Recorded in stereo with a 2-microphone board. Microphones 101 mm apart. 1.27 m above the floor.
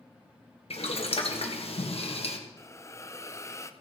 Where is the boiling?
70° left (ahead or behind), 1.7 m.